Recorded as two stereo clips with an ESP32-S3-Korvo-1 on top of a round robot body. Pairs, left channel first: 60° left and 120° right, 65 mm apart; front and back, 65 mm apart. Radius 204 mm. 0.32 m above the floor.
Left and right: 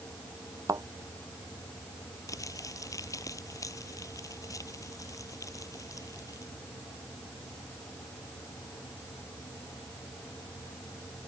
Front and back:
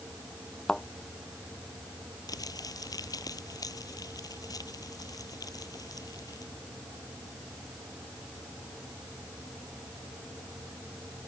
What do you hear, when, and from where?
0.7 s a thud: 80° right
2.3 s crumpling: 25° left